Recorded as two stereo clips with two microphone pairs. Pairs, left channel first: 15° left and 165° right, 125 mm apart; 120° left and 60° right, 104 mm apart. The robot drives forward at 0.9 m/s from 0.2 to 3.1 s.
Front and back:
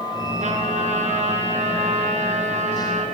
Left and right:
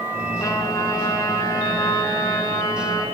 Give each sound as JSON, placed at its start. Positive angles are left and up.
{"t": 0.4, "sound": "a trumpet", "azimuth_deg": 180, "distance_m": 5.5}